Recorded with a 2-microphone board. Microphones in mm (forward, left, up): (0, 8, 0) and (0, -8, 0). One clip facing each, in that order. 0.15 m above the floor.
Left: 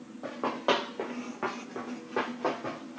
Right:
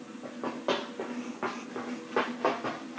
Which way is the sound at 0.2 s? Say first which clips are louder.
Left 4 dB; 35° left (ahead or behind).